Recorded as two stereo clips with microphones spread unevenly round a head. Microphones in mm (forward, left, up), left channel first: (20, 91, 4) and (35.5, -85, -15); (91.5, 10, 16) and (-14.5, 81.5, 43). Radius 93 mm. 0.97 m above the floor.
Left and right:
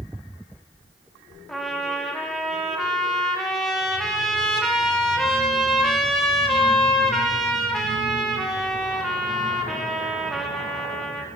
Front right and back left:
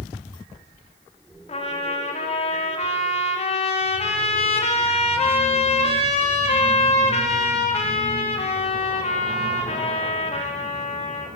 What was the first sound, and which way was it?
A trumpet, 10° left.